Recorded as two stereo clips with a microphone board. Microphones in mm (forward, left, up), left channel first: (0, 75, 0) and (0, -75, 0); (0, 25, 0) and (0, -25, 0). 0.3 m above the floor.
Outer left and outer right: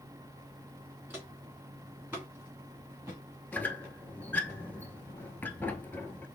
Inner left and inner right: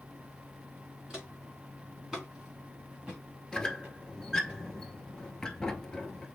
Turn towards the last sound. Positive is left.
turn(degrees=10)  # may be behind; listen again after turning